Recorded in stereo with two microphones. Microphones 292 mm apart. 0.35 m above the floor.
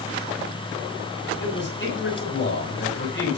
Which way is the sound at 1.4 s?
40° left (ahead or behind).